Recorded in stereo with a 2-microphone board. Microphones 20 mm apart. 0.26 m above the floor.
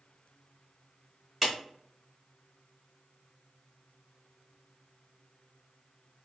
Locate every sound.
1.4 s a clap: 5° right (ahead or behind), 1.3 m